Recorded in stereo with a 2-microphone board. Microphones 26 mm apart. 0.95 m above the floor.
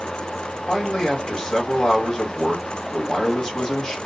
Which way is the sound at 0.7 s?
30° left (ahead or behind).